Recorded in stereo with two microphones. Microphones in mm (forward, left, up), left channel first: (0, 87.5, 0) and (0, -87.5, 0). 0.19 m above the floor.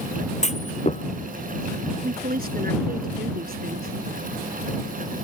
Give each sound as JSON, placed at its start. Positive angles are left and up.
{"t": 0.4, "sound": "a clunk", "side_deg": 40}
{"t": 2.0, "sound": "a woman speaking", "side_deg": -60}